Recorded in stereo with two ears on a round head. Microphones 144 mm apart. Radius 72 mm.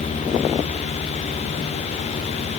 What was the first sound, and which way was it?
Only background noise.